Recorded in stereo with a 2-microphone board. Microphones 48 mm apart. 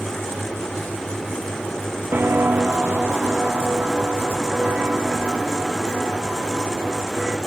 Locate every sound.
2.1 s footsteps: 45° right (ahead or behind), 0.8 m; by 7.4 s 30° right (ahead or behind), 3.5 m